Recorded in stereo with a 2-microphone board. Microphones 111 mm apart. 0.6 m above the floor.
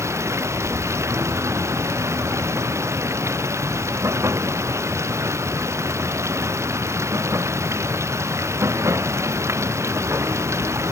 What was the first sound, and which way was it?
Running water, 25° right (ahead or behind).